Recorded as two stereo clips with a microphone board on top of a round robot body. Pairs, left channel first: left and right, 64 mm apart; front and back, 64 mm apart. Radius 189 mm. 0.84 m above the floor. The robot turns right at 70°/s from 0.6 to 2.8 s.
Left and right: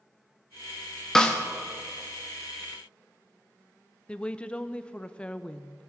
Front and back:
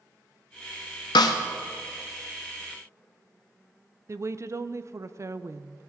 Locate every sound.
1.1 s a snare drum: 5° left, 0.5 m; by 1.4 s 25° left, 0.5 m
4.1 s a woman speaking: 160° left, 0.7 m